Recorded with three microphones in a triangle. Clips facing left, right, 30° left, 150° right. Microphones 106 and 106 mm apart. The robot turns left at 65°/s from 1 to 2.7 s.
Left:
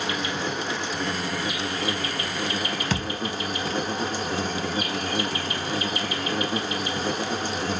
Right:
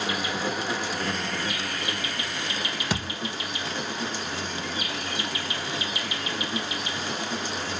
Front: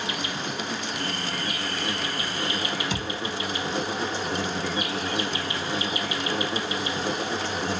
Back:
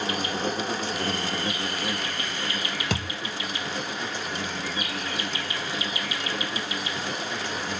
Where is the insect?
175° right, 0.8 m; by 7.8 s 75° left, 0.8 m.